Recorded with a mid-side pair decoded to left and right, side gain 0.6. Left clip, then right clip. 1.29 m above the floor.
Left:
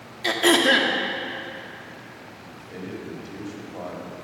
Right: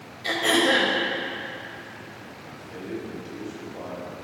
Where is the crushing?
I don't hear crushing.